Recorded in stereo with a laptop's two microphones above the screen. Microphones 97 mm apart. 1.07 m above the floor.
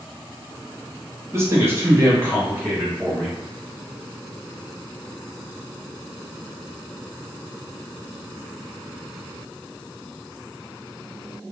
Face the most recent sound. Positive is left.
turn(degrees=-10)  # may be behind; listen again after turning